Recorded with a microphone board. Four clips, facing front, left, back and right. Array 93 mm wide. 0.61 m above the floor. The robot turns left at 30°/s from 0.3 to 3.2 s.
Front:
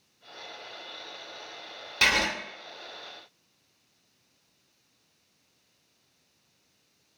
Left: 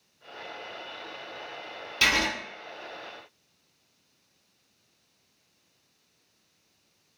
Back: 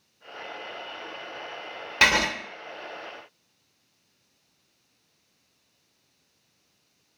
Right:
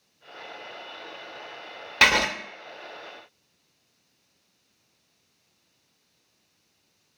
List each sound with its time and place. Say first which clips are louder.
2.0 s writing: right 5 dB, back 4 dB; 120° right, 0.5 m; by 2.3 s 130° right, 0.5 m